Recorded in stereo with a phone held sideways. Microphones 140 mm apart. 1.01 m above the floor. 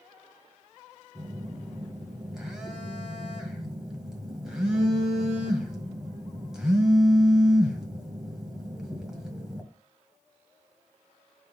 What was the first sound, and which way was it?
A phone buzzing, 5° right (ahead or behind).